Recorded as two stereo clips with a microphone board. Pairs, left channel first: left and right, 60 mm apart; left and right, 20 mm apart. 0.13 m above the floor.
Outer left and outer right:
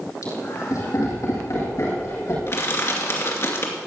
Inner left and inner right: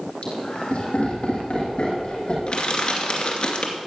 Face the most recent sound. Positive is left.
turn(degrees=50)  # may be behind; listen again after turning